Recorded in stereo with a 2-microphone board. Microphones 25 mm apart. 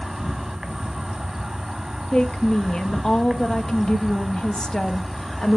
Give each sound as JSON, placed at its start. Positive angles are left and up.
{"t": 0.0, "sound": "an insect", "side_deg": -20, "distance_m": 1.1}
{"t": 2.1, "sound": "a woman speaking", "side_deg": 25, "distance_m": 0.5}